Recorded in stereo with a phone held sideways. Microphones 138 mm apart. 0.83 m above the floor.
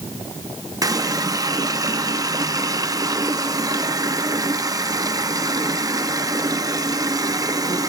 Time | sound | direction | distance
0.8 | a running tap | 25° right (ahead or behind) | 0.7 m